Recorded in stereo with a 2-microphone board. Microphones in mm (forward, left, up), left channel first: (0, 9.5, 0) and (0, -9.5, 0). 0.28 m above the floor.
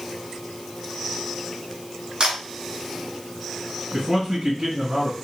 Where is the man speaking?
55° right (ahead or behind), 2.5 m.